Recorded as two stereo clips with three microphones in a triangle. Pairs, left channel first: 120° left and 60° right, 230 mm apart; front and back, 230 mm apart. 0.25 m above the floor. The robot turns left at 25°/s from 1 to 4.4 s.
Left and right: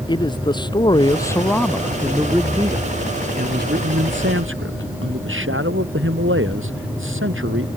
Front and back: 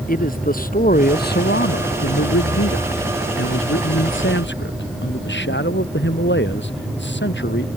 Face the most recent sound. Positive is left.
turn(degrees=-35)